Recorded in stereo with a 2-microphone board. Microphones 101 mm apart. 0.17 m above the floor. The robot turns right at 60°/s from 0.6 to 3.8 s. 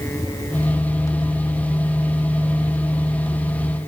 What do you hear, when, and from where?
Only background noise.